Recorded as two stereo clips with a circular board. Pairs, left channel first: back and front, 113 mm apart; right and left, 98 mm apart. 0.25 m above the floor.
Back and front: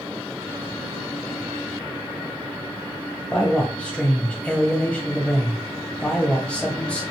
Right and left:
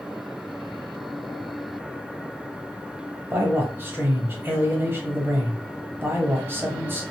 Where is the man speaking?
115° left, 1.0 m.